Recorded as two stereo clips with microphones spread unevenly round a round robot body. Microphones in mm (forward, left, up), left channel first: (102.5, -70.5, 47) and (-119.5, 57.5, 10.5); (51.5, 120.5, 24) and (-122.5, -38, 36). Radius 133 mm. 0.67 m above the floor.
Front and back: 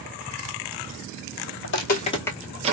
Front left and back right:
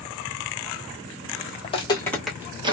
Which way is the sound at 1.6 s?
25° right.